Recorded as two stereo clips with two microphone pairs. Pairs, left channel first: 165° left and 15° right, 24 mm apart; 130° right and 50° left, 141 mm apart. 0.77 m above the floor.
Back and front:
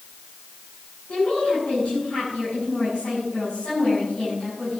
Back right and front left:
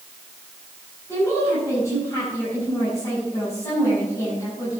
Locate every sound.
1.1 s a woman speaking: 165° left, 7 m